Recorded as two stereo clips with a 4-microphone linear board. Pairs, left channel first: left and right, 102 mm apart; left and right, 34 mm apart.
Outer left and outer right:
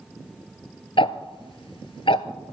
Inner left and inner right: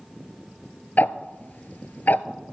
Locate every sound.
1.0 s ticking: 65° left (ahead or behind), 0.7 m